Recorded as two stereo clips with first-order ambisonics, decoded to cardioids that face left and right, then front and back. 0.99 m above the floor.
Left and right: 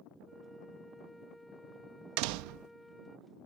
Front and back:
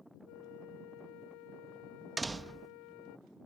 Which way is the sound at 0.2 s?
5° left.